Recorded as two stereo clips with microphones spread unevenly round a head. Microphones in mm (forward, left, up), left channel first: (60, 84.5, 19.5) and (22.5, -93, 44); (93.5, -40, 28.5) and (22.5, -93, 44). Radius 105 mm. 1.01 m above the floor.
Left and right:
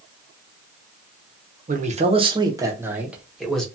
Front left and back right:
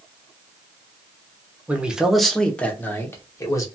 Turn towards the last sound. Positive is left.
turn(degrees=-5)